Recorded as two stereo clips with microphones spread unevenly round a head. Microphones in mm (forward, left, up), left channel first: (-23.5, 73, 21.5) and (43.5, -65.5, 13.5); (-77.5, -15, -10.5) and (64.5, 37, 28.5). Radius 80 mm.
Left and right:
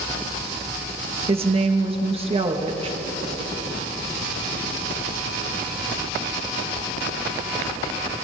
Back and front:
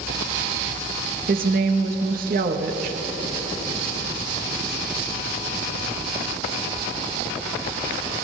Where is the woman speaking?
15° right, 1.4 m.